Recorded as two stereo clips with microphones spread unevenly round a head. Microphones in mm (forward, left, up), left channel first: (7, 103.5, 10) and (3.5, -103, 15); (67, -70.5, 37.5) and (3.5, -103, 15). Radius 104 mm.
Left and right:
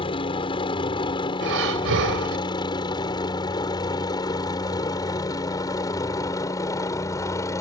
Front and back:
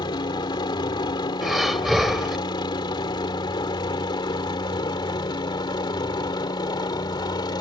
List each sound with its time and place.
0.0 s a helicopter: 25° left; by 7.6 s 15° left
1.4 s breathing: 65° right